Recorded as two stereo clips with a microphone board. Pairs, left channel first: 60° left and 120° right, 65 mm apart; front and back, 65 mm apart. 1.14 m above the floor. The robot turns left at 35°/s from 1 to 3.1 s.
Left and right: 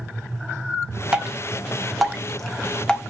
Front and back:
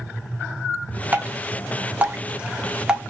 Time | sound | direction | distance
1.1 | dripping | straight behind | 0.7 m